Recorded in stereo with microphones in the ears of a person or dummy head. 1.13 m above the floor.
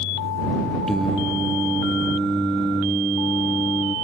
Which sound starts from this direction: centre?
Singing, at 0.9 s.